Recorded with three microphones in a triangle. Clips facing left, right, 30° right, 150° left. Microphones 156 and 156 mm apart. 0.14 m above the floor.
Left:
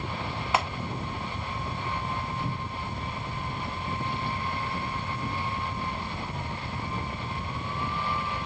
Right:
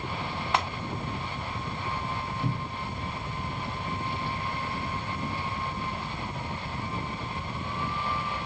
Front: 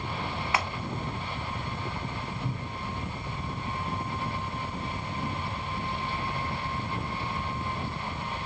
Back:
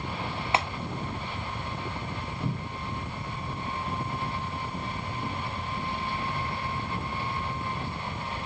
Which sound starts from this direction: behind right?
A cupboard door, at 2.4 s.